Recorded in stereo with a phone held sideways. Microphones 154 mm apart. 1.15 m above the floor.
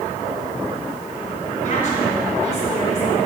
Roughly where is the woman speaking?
Left.